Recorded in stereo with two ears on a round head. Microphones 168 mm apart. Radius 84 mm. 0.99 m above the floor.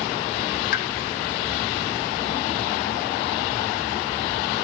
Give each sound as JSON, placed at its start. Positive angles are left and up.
{"t": 0.7, "sound": "a pop", "side_deg": 55, "distance_m": 0.9}